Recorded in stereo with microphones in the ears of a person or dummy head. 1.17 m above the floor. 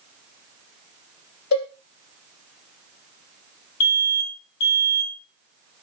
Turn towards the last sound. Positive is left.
turn(degrees=85)